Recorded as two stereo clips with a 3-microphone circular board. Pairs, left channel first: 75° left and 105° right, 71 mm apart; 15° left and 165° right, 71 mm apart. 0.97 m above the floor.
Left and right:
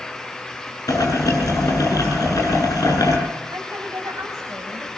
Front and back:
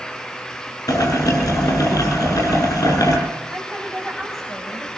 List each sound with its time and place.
0.9 s boiling: 40° left, 9.5 m
3.5 s a woman speaking: 70° right, 6 m